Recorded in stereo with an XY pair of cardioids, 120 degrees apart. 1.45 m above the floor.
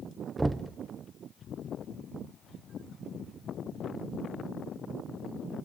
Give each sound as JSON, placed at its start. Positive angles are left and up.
{"t": 0.4, "sound": "knocking", "azimuth_deg": -15, "distance_m": 0.6}